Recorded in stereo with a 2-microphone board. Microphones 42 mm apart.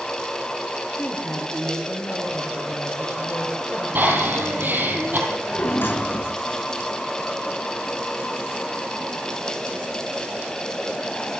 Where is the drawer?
65° left (ahead or behind), 4 m.